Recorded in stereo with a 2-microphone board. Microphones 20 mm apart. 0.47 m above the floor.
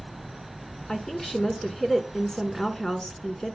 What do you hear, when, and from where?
0.9 s a woman speaking: 25° left (ahead or behind), 1.5 m